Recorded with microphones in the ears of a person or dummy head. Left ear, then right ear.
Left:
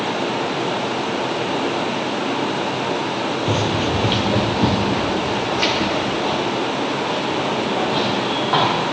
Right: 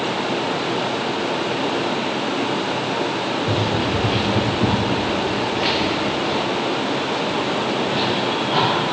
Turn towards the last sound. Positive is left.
turn(degrees=55)  # may be behind; listen again after turning